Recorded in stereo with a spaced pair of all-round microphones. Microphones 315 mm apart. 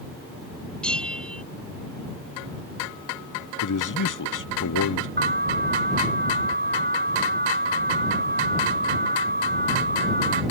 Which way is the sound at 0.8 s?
5° left (ahead or behind).